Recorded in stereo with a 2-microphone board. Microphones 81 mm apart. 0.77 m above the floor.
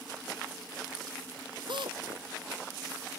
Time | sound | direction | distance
1.7 | a drill | 75° right (ahead or behind) | ?